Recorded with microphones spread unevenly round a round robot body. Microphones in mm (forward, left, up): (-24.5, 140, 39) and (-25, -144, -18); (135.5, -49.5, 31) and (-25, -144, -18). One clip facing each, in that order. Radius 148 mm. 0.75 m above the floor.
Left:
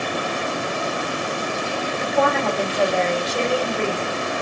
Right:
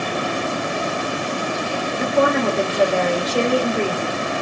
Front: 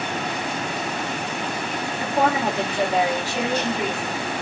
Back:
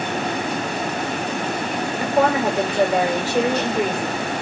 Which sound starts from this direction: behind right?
A woman speaking, at 2.0 s.